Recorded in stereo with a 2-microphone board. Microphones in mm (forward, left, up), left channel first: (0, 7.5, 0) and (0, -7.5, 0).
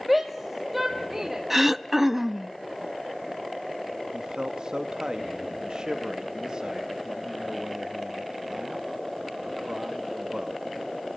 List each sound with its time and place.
0.1 s a shout: 5° right (ahead or behind), 1.5 m; by 1.4 s 20° right (ahead or behind), 2.5 m
1.5 s throat clearing: 15° right (ahead or behind), 0.6 m
4.1 s a man speaking: 60° right (ahead or behind), 1.6 m